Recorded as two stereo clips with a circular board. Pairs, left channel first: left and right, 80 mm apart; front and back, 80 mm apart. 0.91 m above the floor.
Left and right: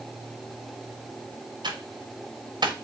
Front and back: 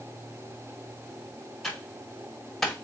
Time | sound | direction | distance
1.6 | typing on a keyboard | 85° right | 1.1 m